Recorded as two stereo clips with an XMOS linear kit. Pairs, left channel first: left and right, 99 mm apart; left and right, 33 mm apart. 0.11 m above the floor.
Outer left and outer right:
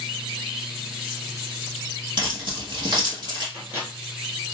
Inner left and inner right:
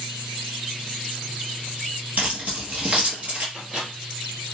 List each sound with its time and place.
2.2 s keys jangling: 50° right (ahead or behind), 1.6 m
3.5 s a microwave: 25° right (ahead or behind), 1.6 m